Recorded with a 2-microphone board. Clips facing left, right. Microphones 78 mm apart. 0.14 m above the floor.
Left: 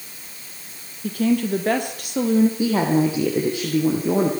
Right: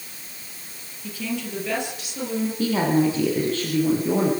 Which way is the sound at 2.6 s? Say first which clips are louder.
Left 1 dB; 15° left (ahead or behind).